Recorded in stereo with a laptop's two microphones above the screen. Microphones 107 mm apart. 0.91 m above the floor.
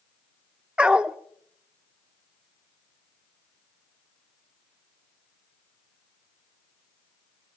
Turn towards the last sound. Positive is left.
turn(degrees=-10)  # may be behind; listen again after turning